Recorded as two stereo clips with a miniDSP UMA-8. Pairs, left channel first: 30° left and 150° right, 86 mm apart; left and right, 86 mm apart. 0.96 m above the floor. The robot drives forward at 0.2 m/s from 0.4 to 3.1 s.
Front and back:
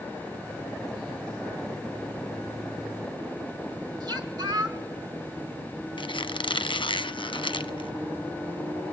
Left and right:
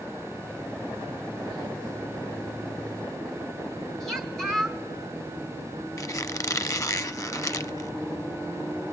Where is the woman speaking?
175° left, 4 m.